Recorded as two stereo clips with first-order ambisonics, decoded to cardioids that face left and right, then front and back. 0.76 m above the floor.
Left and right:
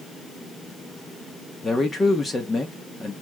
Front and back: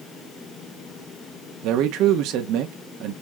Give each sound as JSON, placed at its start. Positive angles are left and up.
{"t": 1.6, "sound": "a man speaking", "azimuth_deg": 165, "distance_m": 1.2}